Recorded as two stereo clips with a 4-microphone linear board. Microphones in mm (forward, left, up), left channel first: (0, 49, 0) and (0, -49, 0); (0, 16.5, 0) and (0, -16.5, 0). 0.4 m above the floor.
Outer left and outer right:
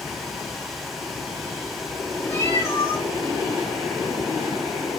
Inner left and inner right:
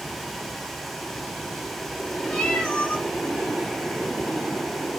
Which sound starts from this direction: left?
A cat meowing, at 2.3 s.